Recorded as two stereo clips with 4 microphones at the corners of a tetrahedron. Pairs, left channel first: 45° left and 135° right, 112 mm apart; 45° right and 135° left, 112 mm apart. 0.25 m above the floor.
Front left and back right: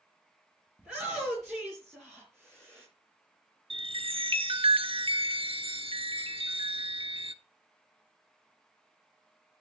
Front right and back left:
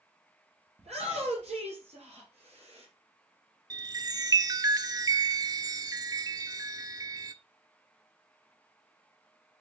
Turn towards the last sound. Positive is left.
turn(degrees=-170)